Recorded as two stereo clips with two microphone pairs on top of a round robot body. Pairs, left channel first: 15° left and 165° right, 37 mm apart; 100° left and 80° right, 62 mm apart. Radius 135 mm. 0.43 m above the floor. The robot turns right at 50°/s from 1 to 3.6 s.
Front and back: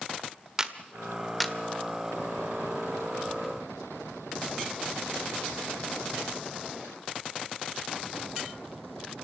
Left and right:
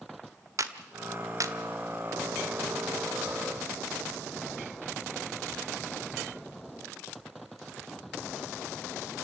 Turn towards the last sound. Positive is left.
turn(degrees=35)